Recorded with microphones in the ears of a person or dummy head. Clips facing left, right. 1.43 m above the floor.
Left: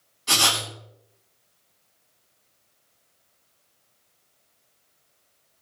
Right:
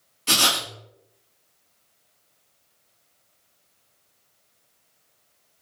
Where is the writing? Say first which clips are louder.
Right 1 dB; 45° right (ahead or behind), 1.3 m.